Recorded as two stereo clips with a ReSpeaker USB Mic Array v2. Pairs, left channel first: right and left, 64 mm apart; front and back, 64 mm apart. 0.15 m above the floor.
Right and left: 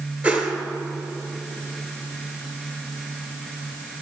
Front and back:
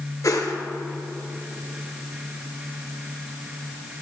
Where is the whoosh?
25° left, 1.3 m.